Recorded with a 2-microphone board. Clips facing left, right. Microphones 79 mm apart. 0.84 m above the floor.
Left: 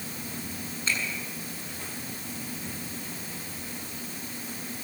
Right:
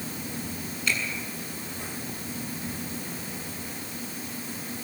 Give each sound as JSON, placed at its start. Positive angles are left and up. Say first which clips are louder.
{"t": 0.9, "sound": "a finger snap", "louder": "right 2 dB", "side_deg": 30, "distance_m": 8.0}